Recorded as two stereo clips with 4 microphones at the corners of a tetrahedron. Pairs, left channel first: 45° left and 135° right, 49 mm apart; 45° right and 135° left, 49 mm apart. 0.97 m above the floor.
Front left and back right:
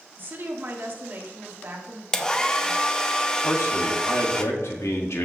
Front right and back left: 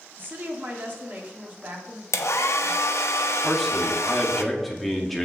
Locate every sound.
0.2 s a woman speaking: straight behind, 2 m
2.1 s a hair dryer: 30° right, 0.8 m
3.4 s a man speaking: 40° left, 2 m